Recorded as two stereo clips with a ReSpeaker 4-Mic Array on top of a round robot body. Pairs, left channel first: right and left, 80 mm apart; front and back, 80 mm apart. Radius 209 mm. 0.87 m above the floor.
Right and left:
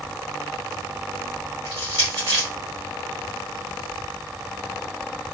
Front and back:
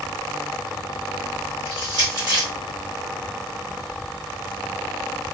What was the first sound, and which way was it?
Crushing, 140° right.